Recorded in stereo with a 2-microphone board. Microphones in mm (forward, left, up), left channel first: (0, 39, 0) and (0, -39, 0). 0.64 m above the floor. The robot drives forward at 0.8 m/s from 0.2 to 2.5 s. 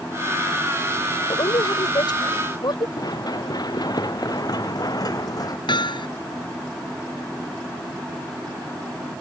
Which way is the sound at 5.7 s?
70° left (ahead or behind).